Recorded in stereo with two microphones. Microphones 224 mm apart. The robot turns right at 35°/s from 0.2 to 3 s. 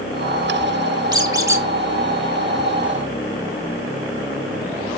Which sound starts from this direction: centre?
A squeak, at 1.1 s.